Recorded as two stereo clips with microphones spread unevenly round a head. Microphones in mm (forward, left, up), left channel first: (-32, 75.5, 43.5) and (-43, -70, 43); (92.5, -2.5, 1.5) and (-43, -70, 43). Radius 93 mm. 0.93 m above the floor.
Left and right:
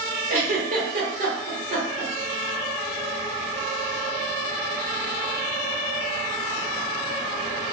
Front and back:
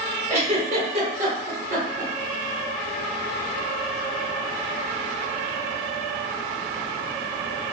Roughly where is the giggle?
Behind right.